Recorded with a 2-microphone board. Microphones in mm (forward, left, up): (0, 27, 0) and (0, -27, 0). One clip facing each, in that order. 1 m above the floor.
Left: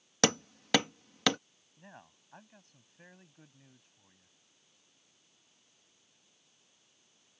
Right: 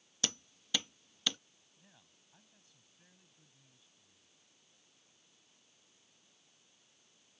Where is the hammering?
70° left (ahead or behind).